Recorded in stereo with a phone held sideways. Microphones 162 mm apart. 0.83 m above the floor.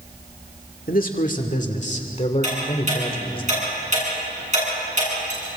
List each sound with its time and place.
0.9 s a man speaking: 60° left (ahead or behind), 2 m; by 3.4 s 35° left (ahead or behind), 2.5 m
2.4 s ticking: 45° right (ahead or behind), 10 m